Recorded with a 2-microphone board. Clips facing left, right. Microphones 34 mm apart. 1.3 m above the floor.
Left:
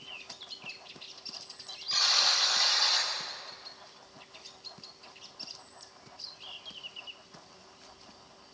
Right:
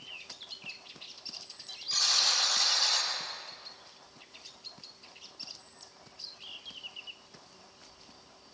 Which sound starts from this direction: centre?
A buzzer, at 1.9 s.